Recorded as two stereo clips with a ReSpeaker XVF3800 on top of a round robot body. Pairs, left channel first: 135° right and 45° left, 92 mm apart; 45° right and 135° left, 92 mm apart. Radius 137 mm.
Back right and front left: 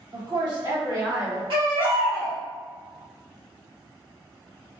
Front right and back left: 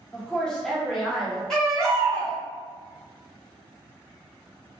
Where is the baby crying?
35° left, 1.8 m.